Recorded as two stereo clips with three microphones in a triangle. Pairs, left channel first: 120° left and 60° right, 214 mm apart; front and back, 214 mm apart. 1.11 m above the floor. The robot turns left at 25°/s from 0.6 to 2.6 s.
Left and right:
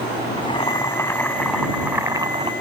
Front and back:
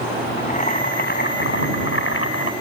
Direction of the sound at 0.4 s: 55° left.